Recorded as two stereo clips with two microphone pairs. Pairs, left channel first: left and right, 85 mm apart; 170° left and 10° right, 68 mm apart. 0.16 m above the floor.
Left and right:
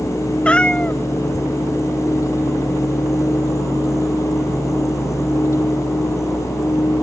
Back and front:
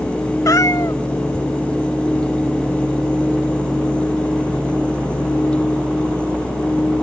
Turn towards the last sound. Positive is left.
turn(degrees=170)